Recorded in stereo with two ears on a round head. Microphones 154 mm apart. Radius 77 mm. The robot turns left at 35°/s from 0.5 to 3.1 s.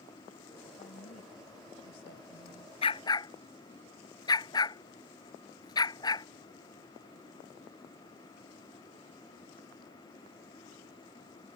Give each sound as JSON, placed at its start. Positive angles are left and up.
{"t": 0.8, "sound": "a woman speaking", "azimuth_deg": 140}
{"t": 2.8, "sound": "a dog barking", "side_deg": 35}